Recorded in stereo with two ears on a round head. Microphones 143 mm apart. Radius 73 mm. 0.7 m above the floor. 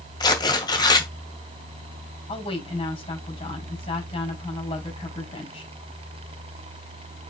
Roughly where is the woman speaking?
Left.